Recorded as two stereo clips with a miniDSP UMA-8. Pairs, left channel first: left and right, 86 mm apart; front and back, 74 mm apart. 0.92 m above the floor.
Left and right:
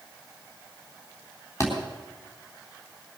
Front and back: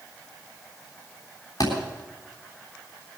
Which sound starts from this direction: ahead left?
A thud, at 1.6 s.